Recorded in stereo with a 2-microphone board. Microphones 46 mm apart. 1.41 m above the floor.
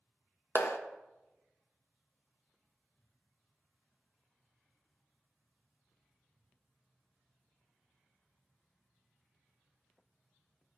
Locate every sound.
0.6 s a clap: 85° left, 0.6 m